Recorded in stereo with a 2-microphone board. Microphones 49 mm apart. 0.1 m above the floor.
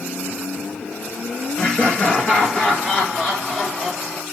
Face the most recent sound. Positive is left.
turn(degrees=10)  # may be behind; listen again after turning